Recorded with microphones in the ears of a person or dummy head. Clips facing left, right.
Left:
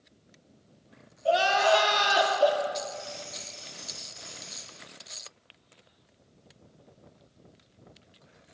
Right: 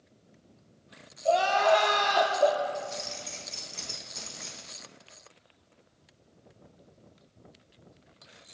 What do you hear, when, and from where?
1.2 s crying: 10° left (ahead or behind), 1.7 m
2.8 s keys jangling: 65° right (ahead or behind), 1.4 m